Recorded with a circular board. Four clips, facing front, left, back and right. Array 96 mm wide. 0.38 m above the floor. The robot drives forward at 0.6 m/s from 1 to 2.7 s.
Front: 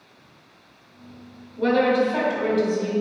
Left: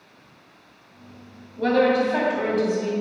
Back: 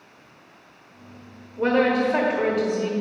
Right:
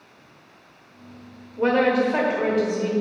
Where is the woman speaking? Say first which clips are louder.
Even, front 1 dB; 125° right, 1.1 m; by 2.9 s 155° right, 1.5 m.